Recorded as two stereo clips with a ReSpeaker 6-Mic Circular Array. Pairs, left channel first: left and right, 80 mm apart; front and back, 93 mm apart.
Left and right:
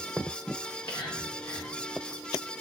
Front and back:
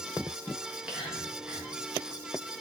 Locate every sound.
0.6 s whispering: 105° left, 1.8 m